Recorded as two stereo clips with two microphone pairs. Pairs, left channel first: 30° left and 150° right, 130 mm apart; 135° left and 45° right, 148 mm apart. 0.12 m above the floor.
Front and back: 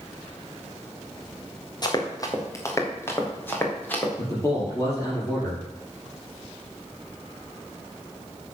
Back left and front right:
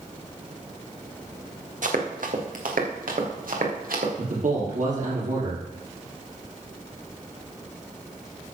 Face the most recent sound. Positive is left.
turn(degrees=-30)